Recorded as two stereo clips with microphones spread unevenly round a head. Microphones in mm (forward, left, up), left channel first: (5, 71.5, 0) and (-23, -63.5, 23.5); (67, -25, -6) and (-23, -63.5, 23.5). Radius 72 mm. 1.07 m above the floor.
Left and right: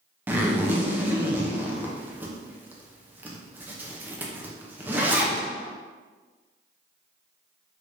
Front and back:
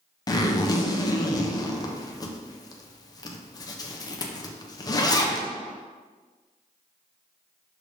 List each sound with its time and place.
0.3 s a zipper: 20° right, 0.6 m